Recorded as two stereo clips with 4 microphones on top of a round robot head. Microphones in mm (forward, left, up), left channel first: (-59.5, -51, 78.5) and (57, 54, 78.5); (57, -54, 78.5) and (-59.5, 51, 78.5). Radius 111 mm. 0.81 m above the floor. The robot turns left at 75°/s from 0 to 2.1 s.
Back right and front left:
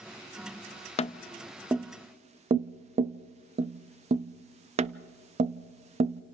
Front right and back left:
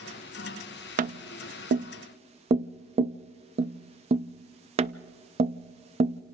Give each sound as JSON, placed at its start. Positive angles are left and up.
{"t": 1.0, "sound": "tapping", "azimuth_deg": 175, "distance_m": 0.6}